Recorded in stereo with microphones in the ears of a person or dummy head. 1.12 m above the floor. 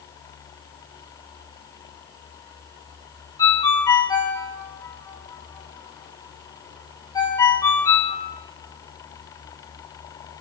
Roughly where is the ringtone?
Centre.